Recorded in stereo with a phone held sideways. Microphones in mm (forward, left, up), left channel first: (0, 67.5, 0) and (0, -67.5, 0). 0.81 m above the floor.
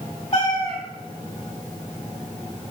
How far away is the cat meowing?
About 1.8 m.